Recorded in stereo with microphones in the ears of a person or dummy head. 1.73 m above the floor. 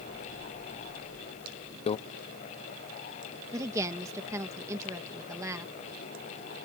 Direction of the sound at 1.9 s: 30° left (ahead or behind).